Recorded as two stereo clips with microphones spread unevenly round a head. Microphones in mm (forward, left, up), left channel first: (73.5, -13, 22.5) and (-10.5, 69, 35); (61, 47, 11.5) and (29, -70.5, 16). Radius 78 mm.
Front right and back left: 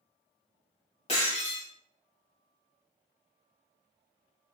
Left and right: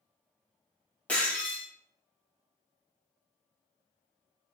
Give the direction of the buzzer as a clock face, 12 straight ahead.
I don't hear a buzzer.